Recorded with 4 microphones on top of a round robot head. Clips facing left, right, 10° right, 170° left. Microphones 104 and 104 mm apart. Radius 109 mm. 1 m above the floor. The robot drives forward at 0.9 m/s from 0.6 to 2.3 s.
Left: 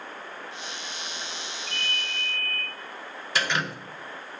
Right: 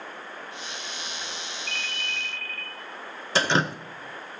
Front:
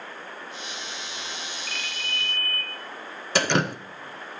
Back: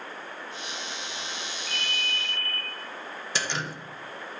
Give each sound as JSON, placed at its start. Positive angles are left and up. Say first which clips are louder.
{"t": 1.7, "sound": "a ringtone", "louder": "left 1 dB, back 1 dB", "azimuth_deg": -45, "distance_m": 1.1}
{"t": 3.4, "sound": "dripping", "louder": "right 5 dB, front 10 dB", "azimuth_deg": -30, "distance_m": 0.6}